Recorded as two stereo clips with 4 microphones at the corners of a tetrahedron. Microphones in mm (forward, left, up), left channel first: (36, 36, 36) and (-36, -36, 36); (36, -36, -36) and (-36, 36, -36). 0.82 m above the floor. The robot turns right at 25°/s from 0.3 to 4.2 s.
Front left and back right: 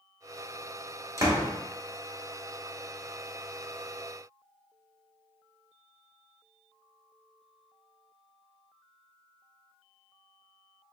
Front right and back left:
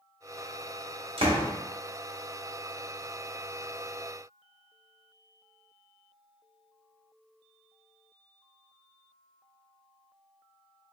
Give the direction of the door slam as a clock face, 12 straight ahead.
7 o'clock.